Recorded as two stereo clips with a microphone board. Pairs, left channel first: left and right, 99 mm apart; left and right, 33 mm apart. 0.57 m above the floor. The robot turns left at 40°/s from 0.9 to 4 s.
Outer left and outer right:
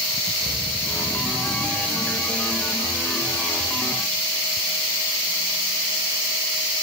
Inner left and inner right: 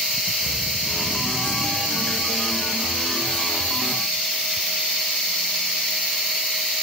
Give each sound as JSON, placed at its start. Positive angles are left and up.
{"t": 0.4, "sound": "breathing", "side_deg": -85, "distance_m": 4.5}